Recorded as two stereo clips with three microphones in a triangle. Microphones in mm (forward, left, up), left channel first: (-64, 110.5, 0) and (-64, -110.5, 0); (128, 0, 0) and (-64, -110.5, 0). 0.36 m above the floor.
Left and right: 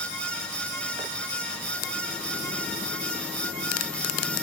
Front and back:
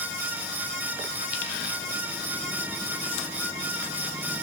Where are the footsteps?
I don't hear footsteps.